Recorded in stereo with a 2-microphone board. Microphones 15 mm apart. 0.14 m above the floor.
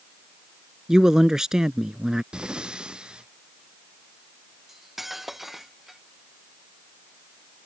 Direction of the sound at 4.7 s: 15° right (ahead or behind).